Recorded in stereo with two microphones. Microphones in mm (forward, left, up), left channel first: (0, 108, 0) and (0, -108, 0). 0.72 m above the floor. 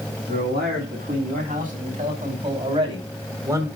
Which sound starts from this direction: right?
A man speaking, at 0.3 s.